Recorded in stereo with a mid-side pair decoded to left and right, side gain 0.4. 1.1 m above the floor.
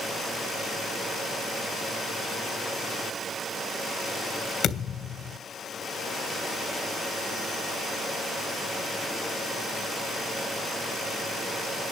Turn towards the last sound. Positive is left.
turn(degrees=65)